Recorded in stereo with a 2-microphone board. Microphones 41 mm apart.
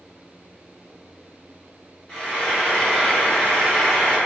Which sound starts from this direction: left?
Frying, at 2.1 s.